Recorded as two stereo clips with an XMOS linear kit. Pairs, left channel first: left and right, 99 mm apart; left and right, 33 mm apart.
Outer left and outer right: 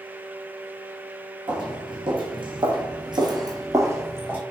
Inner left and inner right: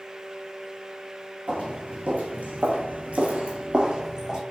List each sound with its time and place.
1.5 s footsteps: 60° right (ahead or behind), 1.3 m; by 4.4 s 20° right (ahead or behind), 1.2 m